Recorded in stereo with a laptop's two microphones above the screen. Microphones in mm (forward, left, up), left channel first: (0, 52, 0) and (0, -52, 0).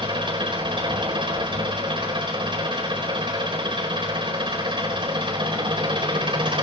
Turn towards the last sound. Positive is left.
turn(degrees=-55)  # may be behind; listen again after turning